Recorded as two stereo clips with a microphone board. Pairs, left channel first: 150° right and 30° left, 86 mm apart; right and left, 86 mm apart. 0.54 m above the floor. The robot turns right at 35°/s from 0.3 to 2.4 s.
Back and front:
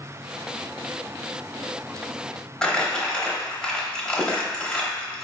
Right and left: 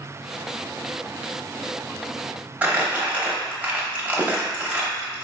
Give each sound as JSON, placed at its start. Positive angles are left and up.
{"t": 2.6, "sound": "crumpling", "azimuth_deg": 140, "distance_m": 0.8}